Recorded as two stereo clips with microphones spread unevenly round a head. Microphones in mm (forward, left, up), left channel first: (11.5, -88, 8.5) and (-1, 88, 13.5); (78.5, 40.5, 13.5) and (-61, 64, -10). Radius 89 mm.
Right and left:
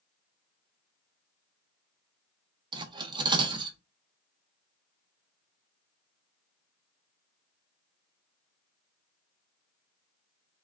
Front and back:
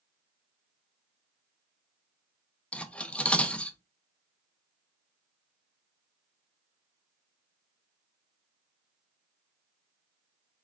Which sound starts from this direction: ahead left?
Cutlery clinking, at 2.7 s.